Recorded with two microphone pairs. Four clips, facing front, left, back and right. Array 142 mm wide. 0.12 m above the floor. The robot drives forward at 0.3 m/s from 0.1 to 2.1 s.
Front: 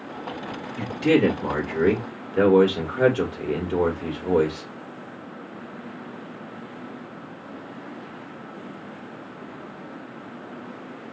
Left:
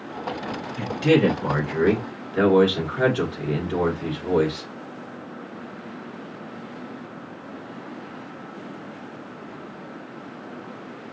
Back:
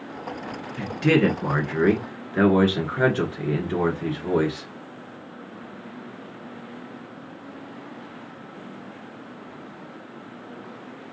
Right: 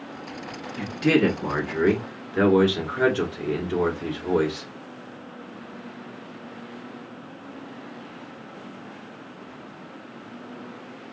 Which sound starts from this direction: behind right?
A man speaking, at 0.8 s.